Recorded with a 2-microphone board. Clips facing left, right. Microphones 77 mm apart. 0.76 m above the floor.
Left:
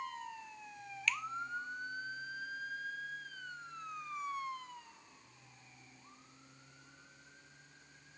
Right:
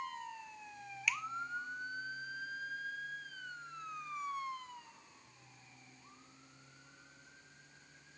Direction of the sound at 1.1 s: 10° right (ahead or behind).